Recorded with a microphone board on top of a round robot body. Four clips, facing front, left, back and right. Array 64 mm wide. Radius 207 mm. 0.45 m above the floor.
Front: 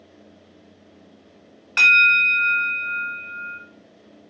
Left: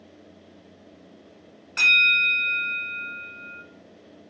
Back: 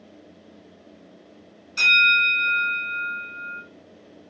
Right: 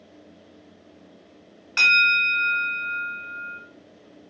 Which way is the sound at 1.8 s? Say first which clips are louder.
Right 1 dB, front 3 dB; 20° right.